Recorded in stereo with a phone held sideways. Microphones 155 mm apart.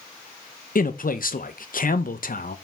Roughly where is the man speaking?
Left.